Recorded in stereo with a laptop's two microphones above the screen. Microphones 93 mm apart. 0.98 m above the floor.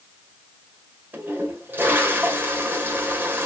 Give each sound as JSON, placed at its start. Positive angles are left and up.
{"t": 1.1, "sound": "a toilet flushing", "side_deg": -20, "distance_m": 2.5}